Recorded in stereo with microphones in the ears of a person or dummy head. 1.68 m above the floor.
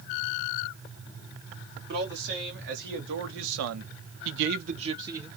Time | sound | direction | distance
1.9 | a man speaking | 50° right (ahead or behind) | 1.7 m